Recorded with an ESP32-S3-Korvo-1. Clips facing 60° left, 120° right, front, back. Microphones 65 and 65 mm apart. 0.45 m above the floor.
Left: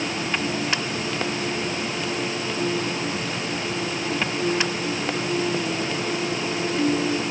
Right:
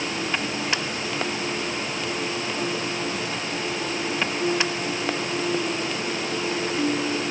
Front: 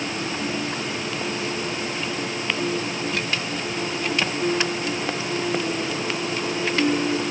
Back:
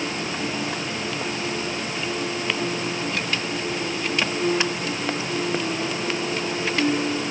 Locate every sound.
Only background noise.